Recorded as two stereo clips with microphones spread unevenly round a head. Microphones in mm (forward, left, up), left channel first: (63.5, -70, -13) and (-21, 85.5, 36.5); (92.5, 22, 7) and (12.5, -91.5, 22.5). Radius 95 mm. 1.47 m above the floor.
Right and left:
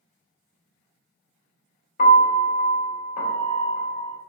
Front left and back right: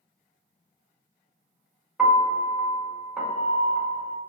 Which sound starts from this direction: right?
A piano, at 2.0 s.